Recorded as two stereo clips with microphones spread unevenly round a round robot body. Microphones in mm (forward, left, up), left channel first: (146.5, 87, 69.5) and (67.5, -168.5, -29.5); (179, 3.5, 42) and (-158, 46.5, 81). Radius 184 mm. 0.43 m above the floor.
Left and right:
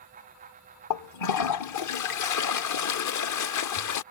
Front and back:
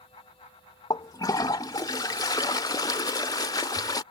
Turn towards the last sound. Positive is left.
turn(degrees=65)